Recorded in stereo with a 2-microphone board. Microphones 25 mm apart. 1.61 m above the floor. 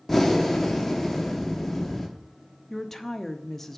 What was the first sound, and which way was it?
Breathing, centre (ahead or behind).